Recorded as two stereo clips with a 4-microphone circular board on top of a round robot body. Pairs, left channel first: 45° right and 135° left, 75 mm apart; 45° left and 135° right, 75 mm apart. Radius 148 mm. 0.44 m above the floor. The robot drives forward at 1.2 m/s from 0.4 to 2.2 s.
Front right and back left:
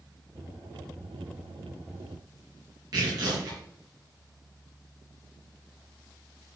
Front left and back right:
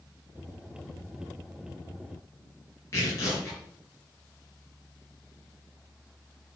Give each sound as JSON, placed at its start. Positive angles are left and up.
{"t": 2.9, "sound": "tearing paper", "azimuth_deg": 100, "distance_m": 5.5}